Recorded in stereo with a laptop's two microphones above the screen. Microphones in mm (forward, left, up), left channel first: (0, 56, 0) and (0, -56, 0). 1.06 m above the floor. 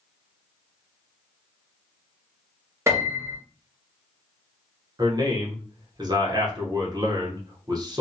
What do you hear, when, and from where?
2.9 s a piano: 25° right (ahead or behind), 0.7 m
5.0 s a man speaking: 40° right (ahead or behind), 0.9 m